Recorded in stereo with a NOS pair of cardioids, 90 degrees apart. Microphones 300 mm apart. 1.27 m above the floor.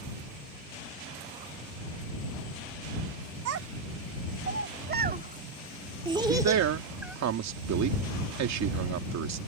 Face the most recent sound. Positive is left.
turn(degrees=-65)